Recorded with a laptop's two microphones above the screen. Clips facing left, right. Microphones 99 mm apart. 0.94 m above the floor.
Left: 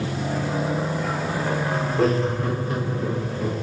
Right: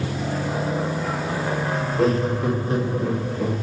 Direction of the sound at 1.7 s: 10° left (ahead or behind).